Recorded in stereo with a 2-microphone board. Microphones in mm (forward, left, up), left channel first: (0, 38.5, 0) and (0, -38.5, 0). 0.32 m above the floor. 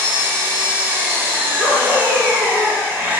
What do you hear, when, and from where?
0.0 s an engine running: 20° right (ahead or behind), 0.8 m
1.6 s a dog barking: 40° left (ahead or behind), 2.0 m